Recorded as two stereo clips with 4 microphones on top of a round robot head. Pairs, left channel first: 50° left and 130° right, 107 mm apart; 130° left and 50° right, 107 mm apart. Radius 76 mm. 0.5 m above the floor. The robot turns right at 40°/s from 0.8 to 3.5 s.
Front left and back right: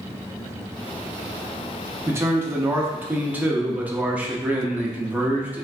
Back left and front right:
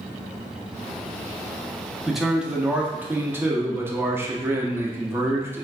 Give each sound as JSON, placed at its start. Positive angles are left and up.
{"t": 2.1, "sound": "a man speaking", "azimuth_deg": -135, "distance_m": 0.7}